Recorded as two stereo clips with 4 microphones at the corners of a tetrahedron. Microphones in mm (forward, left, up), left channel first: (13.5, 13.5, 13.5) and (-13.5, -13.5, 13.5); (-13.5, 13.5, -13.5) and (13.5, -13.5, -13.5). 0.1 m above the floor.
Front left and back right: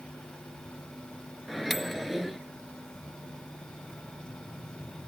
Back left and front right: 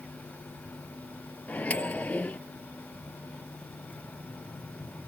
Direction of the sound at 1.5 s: 140° left.